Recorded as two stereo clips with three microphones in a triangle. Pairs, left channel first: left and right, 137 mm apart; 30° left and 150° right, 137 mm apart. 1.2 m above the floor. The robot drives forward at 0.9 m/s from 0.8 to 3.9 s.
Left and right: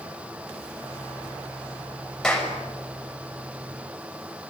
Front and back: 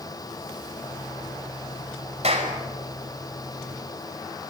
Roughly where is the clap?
Behind.